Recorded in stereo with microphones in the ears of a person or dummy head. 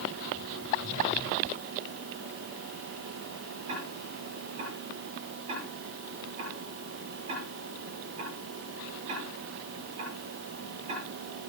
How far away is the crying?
I don't hear crying.